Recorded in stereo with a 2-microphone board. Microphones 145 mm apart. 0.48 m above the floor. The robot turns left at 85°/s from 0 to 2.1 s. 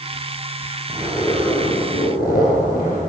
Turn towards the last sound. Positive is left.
turn(degrees=95)